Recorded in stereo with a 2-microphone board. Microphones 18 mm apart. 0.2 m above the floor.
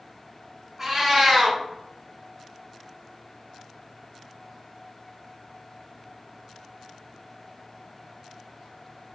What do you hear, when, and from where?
0.8 s a cat meowing: 25° right (ahead or behind), 1.0 m